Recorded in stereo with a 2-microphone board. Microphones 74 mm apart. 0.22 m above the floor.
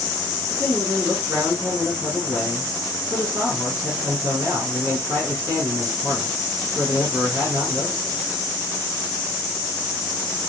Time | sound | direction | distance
0.5 | a man speaking | 40° right (ahead or behind) | 2.5 m